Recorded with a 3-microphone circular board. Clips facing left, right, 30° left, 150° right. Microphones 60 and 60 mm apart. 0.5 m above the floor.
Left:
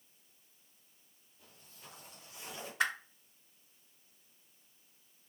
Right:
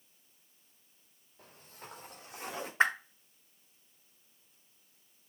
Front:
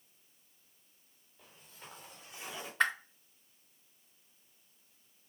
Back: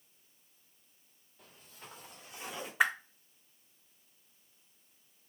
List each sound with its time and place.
1.4 s footsteps: 60° right, 4.5 m; by 2.7 s 70° right, 5.5 m
2.8 s a whoosh: 80° right, 0.9 m